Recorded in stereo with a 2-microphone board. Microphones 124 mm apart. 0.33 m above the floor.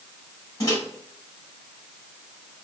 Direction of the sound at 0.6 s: 30° left (ahead or behind).